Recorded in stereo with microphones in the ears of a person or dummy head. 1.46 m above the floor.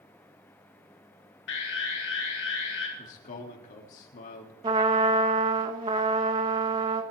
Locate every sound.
1.5 s an alarm: 60° left (ahead or behind), 2 m
3.0 s a man speaking: 40° left (ahead or behind), 3.5 m
4.6 s a trumpet: 25° right (ahead or behind), 1.1 m